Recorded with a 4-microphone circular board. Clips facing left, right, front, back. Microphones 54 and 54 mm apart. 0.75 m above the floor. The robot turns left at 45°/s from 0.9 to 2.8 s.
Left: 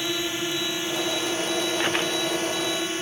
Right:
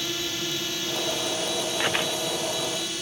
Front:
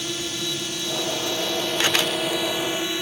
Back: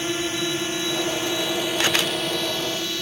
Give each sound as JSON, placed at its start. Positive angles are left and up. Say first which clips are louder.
{"t": 0.0, "sound": "a drone", "louder": "left 3 dB, back 4 dB", "azimuth_deg": 145}